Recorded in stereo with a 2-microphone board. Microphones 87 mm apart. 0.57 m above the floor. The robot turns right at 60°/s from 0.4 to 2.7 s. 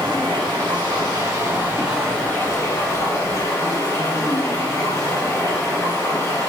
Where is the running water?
95° right, 1.9 m; by 6.5 s 40° left, 1.9 m.